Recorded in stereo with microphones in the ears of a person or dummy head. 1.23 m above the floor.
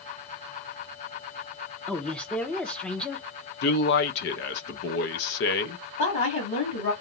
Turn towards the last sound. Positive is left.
turn(degrees=40)  # may be behind; listen again after turning